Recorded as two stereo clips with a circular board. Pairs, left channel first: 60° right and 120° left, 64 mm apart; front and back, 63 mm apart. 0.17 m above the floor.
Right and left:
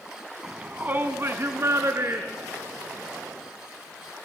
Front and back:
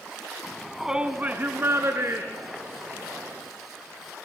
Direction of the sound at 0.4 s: 60° left.